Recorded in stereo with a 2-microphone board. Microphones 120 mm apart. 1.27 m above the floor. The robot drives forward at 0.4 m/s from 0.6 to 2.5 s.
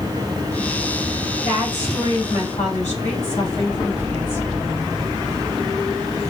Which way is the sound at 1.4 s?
85° left.